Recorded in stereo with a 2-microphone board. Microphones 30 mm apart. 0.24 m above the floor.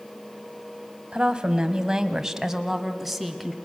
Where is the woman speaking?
35° right (ahead or behind), 1.5 m; by 3.5 s centre (ahead or behind), 2 m.